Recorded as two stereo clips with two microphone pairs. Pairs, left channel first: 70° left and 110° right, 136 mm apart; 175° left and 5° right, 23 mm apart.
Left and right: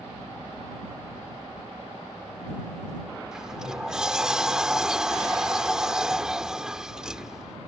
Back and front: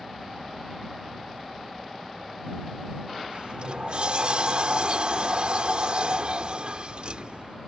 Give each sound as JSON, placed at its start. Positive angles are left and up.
{"t": 3.3, "sound": "a sliding door", "azimuth_deg": -25}